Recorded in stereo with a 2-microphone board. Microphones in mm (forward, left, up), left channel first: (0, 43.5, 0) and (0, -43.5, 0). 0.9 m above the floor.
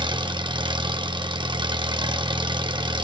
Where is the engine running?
65° right (ahead or behind), 1.2 m.